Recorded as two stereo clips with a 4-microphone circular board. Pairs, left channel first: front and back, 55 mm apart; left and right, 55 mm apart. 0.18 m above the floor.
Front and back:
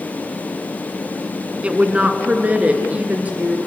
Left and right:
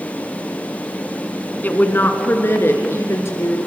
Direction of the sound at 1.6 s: 125° left.